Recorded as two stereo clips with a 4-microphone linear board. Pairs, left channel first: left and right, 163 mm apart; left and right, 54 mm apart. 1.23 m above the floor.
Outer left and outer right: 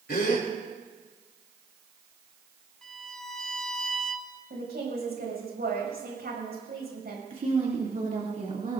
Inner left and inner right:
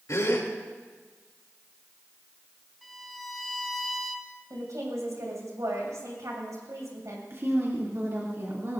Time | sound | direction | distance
0.1 | a gasp | 70° left (ahead or behind) | 3 m
2.8 | a violin | 5° left (ahead or behind) | 1.5 m
4.5 | a woman speaking | 75° right (ahead or behind) | 6.5 m
7.3 | a woman speaking | 55° right (ahead or behind) | 2.5 m